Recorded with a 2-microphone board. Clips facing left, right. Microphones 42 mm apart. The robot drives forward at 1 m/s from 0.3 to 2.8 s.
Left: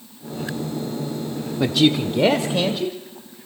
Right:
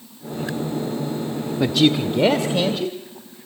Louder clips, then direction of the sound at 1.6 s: Even; centre (ahead or behind).